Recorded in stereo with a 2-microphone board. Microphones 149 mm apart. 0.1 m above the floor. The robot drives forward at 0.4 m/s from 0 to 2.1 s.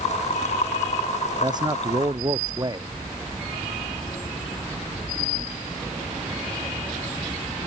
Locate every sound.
1.4 s a man speaking: 30° right (ahead or behind)